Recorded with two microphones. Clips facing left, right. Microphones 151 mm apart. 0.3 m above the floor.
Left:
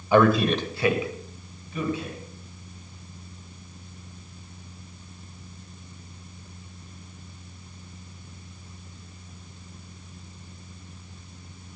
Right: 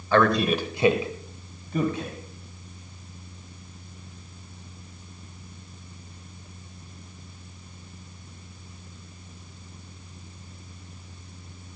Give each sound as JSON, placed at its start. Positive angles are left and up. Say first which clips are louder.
{"t": 0.1, "sound": "a man speaking", "louder": "left 2 dB", "side_deg": 15, "distance_m": 1.2}